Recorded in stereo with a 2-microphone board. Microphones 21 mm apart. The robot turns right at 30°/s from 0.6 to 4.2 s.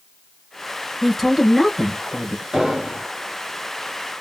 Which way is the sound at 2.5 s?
15° right (ahead or behind).